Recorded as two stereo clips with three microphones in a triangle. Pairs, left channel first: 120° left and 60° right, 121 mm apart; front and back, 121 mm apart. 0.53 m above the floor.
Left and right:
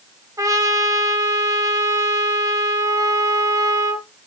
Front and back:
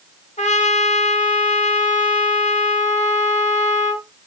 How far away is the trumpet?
About 1.9 m.